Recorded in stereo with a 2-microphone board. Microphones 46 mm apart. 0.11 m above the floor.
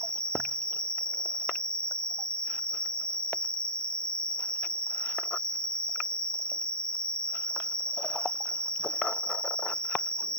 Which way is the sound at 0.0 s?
20° left (ahead or behind).